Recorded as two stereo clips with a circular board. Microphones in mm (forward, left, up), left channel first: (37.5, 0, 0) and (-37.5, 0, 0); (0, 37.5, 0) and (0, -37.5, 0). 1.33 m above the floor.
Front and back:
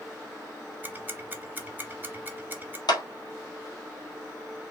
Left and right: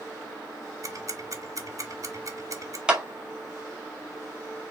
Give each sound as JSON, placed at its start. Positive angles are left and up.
{"t": 0.8, "sound": "ticking", "azimuth_deg": -120, "distance_m": 1.0}
{"t": 2.9, "sound": "a clap", "azimuth_deg": -15, "distance_m": 1.4}